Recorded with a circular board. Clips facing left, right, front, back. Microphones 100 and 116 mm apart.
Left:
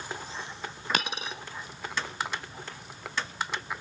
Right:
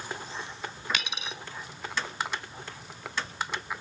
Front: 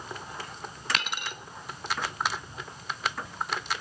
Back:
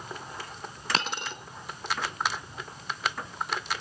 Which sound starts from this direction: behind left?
A dropped coin, at 0.9 s.